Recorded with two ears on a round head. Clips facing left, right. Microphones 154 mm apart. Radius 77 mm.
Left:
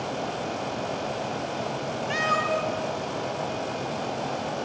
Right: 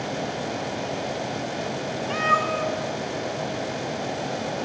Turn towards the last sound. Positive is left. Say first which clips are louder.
# right 1 dB
turn(degrees=15)  # may be behind; listen again after turning